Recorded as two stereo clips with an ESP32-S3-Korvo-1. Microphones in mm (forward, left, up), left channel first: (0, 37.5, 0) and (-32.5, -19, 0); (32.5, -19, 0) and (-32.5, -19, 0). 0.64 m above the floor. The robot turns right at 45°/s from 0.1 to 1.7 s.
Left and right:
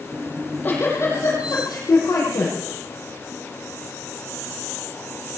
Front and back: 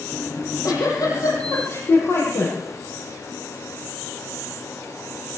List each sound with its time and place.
0.4 s a giggle: 15° right, 10 m; by 2.6 s 45° left, 10 m